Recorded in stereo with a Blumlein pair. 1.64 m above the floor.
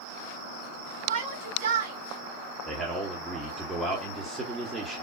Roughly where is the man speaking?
Ahead.